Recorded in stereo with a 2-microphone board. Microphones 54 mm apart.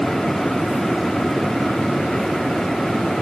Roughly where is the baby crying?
No baby crying in this recording.